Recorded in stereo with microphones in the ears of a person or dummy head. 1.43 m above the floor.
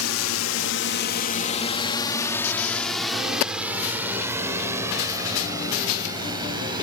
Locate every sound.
0.0 s a drone: 75° left (ahead or behind); by 6.8 s 20° right (ahead or behind)